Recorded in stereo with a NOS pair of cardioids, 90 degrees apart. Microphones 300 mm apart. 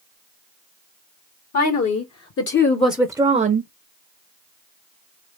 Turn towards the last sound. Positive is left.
turn(degrees=-40)